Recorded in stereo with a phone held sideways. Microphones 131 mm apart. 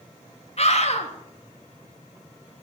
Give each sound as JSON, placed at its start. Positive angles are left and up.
{"t": 0.6, "sound": "a scream", "side_deg": 55, "distance_m": 3.0}